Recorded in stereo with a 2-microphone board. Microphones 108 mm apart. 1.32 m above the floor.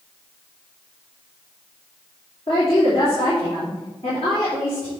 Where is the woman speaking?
60° left (ahead or behind), 3 m.